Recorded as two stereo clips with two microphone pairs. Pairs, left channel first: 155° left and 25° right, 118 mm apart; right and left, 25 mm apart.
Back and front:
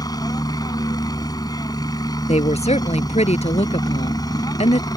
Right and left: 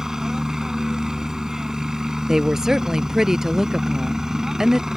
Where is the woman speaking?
155° left.